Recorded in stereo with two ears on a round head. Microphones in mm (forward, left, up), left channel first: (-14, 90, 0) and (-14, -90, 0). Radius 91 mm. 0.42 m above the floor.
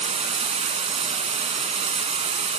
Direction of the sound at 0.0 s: 35° right (ahead or behind).